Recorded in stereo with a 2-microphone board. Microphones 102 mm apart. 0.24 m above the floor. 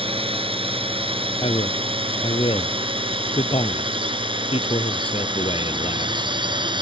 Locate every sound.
0.0 s a drone: 65° right (ahead or behind); by 6.8 s 50° right (ahead or behind)
1.4 s a man speaking: 65° left (ahead or behind)